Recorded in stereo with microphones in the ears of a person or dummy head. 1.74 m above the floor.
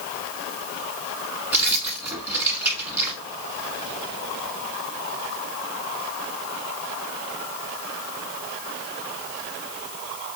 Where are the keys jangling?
10° right (ahead or behind), 1.3 m.